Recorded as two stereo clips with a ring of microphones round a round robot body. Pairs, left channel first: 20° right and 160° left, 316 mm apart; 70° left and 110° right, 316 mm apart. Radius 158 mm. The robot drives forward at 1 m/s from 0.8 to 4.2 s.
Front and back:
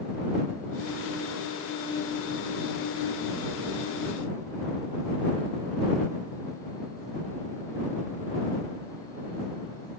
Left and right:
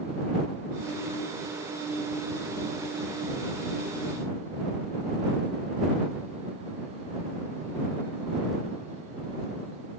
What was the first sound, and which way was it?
Only background noise.